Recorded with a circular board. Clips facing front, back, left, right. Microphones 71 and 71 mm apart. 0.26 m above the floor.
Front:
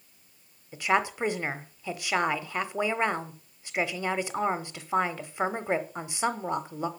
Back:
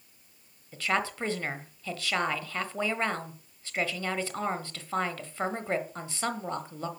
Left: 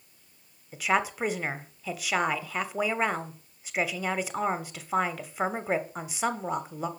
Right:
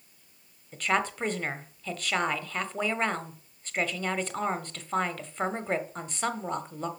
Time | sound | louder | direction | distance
0.7 | a woman speaking | front 4 dB, left 1 dB | 30° left | 0.9 m